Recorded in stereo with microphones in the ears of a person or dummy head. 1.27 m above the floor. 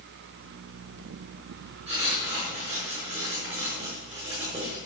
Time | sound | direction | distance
1.9 | writing | 35° right (ahead or behind) | 5 m